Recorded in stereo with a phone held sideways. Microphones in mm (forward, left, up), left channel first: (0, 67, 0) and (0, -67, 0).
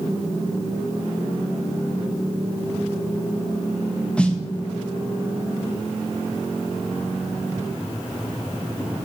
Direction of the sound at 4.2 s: 10° left (ahead or behind).